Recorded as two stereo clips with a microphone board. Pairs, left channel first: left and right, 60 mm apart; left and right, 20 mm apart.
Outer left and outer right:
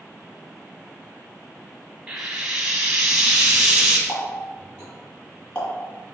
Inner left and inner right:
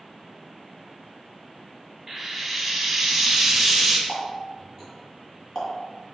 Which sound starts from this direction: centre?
Frying, at 2.1 s.